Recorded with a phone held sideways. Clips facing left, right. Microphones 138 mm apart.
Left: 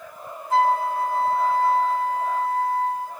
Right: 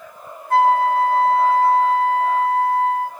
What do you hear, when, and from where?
0.5 s a flute: 60° right (ahead or behind), 1.4 m